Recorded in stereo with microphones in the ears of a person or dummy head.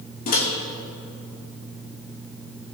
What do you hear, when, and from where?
0.3 s a microwave: 45° left (ahead or behind), 2 m